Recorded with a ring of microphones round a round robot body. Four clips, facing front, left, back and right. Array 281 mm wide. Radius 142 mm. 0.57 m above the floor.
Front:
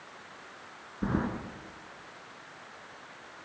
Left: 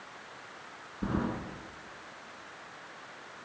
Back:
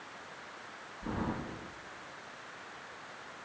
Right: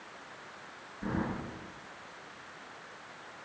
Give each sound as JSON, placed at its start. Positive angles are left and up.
{"t": 1.0, "sound": "keys jangling", "azimuth_deg": 20, "distance_m": 6.0}